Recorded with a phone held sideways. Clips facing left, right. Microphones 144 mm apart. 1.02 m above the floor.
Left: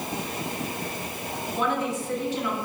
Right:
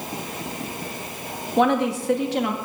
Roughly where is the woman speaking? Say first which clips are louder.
Right 8 dB; right.